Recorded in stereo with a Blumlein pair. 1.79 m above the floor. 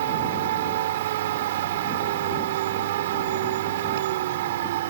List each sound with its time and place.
0.0 s a machine running: 55° right